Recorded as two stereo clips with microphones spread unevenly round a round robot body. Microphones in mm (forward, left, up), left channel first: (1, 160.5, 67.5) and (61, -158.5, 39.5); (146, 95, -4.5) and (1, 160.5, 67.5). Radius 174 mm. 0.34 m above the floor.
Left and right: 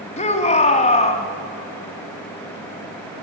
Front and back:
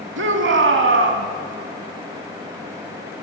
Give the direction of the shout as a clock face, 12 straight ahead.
6 o'clock.